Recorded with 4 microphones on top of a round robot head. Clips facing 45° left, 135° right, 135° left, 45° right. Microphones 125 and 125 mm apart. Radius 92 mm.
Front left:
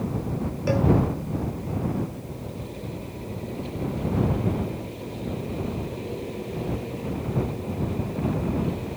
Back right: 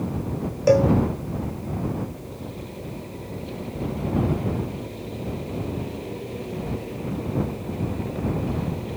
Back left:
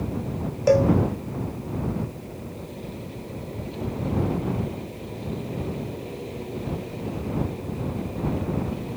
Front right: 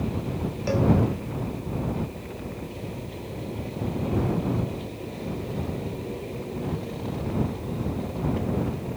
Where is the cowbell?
Straight behind.